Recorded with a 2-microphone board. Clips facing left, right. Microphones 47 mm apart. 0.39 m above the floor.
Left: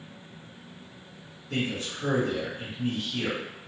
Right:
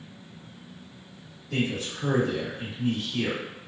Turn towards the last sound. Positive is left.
turn(degrees=50)  # may be behind; listen again after turning